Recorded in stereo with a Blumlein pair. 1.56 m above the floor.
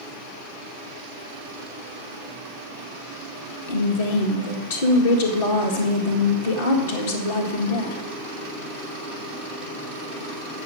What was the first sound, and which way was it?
A woman speaking, 60° left.